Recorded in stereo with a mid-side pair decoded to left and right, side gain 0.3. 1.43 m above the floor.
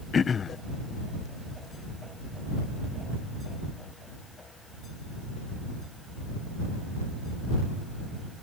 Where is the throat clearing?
60° left.